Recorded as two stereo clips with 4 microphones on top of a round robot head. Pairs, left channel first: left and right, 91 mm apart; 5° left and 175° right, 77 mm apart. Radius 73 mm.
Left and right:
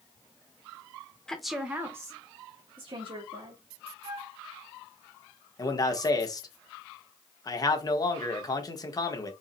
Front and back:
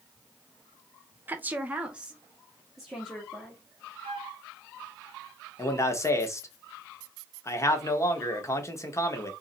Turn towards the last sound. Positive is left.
turn(degrees=50)